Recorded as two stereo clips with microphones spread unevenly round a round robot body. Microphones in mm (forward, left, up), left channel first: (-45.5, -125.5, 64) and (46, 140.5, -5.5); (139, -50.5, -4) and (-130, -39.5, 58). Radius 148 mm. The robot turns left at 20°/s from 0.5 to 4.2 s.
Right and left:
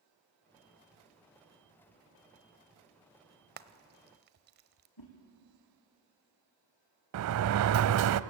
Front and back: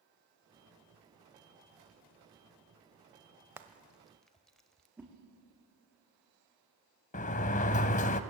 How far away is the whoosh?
About 4.5 m.